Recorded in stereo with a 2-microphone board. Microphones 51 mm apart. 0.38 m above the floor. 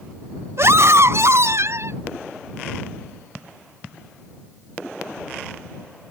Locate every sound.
0.6 s a scream: 60° right (ahead or behind)